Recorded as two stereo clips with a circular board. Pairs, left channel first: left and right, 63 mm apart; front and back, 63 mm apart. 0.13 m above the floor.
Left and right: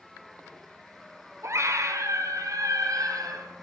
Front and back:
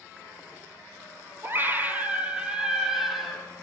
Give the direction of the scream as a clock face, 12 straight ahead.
4 o'clock.